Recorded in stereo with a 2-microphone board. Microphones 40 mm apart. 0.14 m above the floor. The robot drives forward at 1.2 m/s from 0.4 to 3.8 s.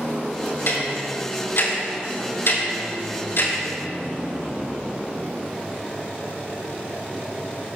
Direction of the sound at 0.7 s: 70° left (ahead or behind).